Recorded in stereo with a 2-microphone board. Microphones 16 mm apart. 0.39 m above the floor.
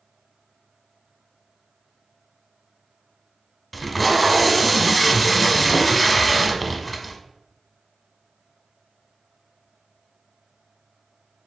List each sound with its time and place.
3.7 s tape being pulled: 5° left (ahead or behind), 0.7 m